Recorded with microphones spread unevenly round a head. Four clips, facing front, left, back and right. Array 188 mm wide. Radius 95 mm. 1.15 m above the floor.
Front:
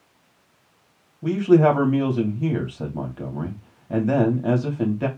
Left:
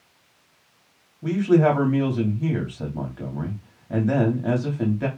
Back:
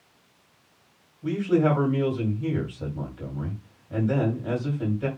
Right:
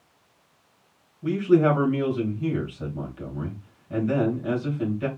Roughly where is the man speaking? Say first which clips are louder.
Left 1 dB, front 6 dB; ahead.